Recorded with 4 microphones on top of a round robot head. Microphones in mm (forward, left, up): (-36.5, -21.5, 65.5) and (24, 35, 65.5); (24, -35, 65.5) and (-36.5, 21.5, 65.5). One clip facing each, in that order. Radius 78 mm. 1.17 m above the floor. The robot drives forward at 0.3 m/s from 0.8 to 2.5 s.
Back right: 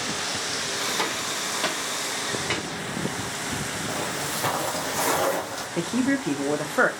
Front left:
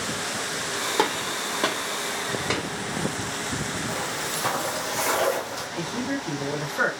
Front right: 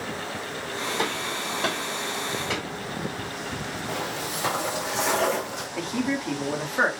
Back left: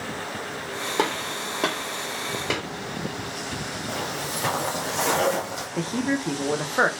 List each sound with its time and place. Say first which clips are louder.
1.0 s a gunshot: front left 4 dB, back left 6 dB; 95° left, 1.6 m; by 2.6 s 110° left, 1.7 m
3.9 s footsteps: even, back left 1 dB; 165° right, 1.5 m; by 5.7 s 165° left, 2.5 m
5.8 s a man speaking: back right 6 dB, back left 2 dB; 165° right, 1.1 m